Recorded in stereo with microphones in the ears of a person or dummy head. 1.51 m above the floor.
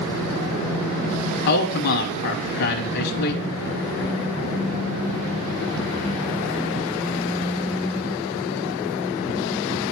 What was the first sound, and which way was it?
A man speaking, 55° left (ahead or behind).